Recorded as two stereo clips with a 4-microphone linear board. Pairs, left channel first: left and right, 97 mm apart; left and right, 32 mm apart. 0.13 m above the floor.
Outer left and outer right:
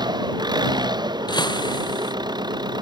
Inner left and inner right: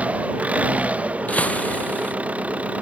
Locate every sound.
0.0 s an engine running: 45° right (ahead or behind)
1.3 s breaking glass: 45° left (ahead or behind)